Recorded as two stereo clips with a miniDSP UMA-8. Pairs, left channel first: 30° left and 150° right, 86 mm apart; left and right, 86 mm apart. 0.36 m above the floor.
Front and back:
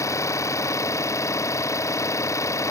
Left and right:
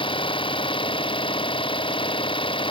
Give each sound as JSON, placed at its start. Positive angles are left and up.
{"t": 0.0, "sound": "an engine running", "azimuth_deg": 85}